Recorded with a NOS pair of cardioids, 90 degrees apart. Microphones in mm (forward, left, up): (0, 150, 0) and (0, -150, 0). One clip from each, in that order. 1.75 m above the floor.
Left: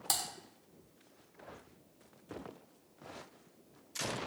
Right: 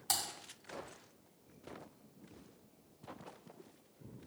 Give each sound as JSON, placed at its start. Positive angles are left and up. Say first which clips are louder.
{"t": 0.1, "sound": "typing on a keyboard", "louder": "left 1 dB", "azimuth_deg": 20, "distance_m": 1.2}